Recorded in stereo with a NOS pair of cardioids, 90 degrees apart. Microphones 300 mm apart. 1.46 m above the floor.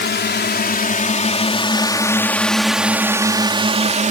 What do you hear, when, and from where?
0.0 s a drone: 35° left; by 4.1 s 25° right